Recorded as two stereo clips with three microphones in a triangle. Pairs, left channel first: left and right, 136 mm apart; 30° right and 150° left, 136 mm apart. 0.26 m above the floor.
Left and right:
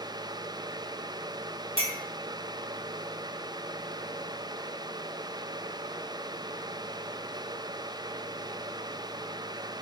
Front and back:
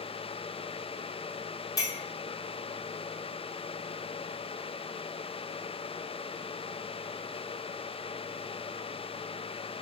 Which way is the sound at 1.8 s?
80° right.